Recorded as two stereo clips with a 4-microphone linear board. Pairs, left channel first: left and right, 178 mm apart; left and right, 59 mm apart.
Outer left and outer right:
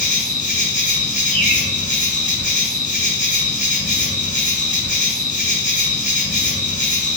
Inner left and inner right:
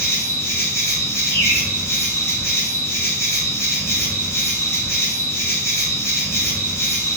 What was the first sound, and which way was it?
An insect, 45° left (ahead or behind).